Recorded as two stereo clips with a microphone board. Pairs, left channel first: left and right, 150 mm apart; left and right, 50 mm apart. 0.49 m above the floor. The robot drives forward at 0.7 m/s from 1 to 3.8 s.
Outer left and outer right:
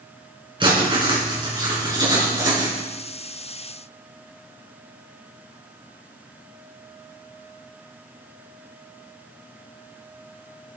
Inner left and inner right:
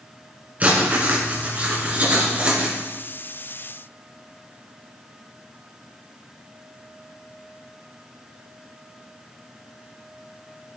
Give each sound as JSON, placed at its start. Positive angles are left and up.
{"t": 0.6, "sound": "writing", "side_deg": -30, "distance_m": 4.0}